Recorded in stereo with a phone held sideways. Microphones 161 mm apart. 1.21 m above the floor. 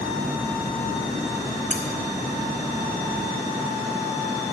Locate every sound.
1.7 s cutlery clinking: 40° right (ahead or behind), 1.6 m